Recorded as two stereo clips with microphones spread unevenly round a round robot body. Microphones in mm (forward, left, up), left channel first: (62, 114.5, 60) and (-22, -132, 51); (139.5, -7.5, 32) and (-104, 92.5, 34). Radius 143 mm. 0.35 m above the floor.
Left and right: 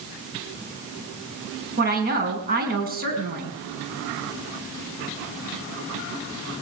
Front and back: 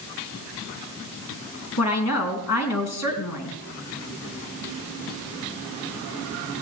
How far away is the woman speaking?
About 4 m.